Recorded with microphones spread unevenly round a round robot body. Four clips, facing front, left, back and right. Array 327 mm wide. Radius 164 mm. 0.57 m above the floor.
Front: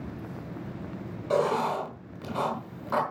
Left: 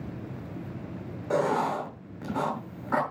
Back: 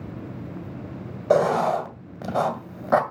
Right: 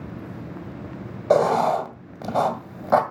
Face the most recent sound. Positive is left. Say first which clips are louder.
# right 8 dB, back 6 dB
turn(degrees=-135)